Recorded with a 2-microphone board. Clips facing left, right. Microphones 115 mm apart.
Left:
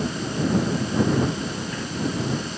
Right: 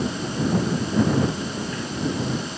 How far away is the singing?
I don't hear singing.